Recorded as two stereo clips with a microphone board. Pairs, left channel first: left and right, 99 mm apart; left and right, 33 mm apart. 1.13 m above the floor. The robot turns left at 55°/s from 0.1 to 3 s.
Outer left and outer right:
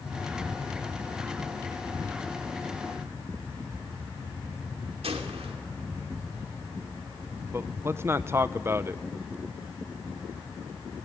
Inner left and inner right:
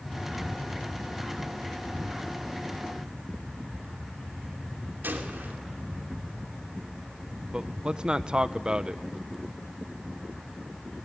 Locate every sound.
5.0 s a gunshot: 85° right, 3 m
7.5 s a man speaking: 25° right (ahead or behind), 0.8 m